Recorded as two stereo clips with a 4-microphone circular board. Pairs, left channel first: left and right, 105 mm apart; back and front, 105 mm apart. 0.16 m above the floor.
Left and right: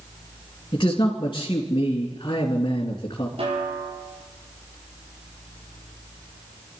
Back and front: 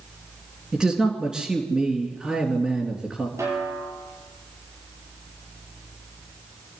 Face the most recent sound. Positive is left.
turn(degrees=-65)